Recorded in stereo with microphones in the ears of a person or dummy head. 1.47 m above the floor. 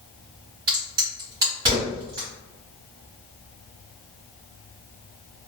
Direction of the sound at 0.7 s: 15° right (ahead or behind).